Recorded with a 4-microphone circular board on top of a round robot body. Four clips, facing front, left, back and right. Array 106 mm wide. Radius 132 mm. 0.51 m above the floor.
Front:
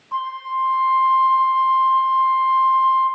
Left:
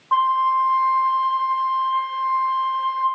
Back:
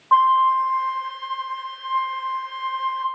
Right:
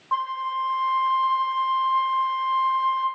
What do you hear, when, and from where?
0.1 s a flute: 170° left, 1.0 m